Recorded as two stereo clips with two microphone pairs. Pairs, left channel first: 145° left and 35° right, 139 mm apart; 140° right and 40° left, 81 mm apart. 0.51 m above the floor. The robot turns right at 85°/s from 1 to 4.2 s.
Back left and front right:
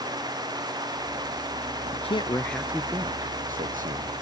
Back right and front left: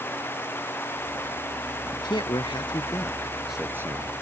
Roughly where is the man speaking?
Behind.